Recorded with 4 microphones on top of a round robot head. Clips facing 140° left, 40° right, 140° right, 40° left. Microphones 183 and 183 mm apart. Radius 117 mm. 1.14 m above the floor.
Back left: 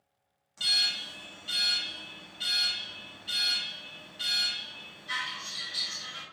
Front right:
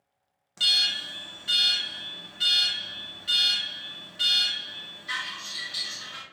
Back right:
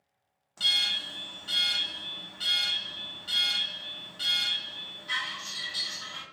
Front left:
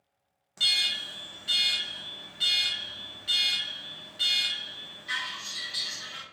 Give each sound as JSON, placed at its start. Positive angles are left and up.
{"t": 0.6, "sound": "an alarm", "azimuth_deg": -35, "distance_m": 0.8}